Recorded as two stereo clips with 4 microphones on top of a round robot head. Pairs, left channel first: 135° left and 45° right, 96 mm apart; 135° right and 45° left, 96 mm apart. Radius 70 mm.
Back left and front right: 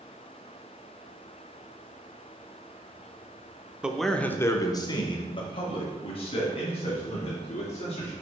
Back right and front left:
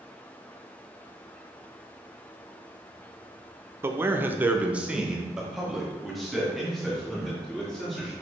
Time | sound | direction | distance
3.8 | a man speaking | 25° left | 0.7 m